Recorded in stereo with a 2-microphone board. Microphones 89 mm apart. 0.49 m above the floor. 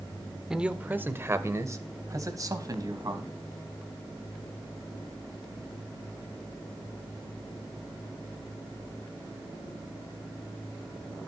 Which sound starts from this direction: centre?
A man speaking, at 0.5 s.